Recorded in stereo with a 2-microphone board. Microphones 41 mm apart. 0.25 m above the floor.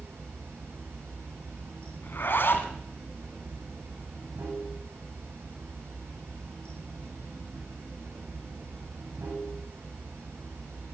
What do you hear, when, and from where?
0.0 s running water: 85° right, 8 m
2.0 s a zipper: 55° left (ahead or behind), 2.5 m